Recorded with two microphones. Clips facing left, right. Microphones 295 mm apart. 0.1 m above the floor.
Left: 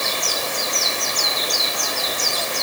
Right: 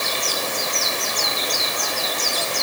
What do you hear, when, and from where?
Only background noise.